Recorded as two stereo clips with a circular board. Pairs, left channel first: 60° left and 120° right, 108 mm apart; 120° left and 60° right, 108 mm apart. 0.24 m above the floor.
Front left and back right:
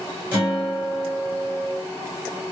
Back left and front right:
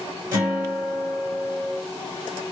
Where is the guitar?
70° right, 1.8 m.